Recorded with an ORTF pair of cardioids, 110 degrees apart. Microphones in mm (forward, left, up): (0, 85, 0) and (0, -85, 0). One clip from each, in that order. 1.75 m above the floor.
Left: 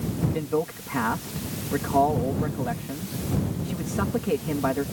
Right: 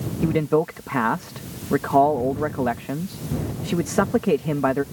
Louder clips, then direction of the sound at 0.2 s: Right 7 dB; 65° right.